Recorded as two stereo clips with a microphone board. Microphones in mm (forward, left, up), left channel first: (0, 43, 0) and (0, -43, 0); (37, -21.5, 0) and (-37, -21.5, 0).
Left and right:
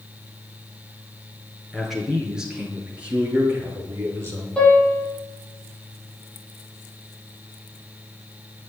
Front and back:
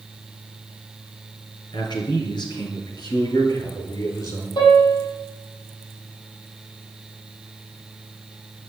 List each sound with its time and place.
1.7 s a man speaking: straight ahead, 5 m; by 4.5 s 30° right, 6.5 m
4.6 s a piano: 10° left, 6.5 m